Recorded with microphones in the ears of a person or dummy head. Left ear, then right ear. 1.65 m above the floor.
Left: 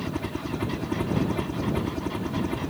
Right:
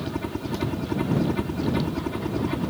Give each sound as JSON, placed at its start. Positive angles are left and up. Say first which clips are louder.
{"t": 0.0, "sound": "a helicopter", "louder": "right 1 dB", "side_deg": 5}